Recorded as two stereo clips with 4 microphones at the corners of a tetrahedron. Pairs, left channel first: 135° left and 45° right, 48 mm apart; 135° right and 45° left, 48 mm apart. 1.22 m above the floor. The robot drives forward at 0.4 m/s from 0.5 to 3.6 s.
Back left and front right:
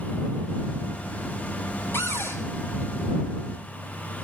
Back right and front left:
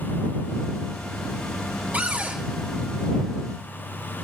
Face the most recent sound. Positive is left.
turn(degrees=105)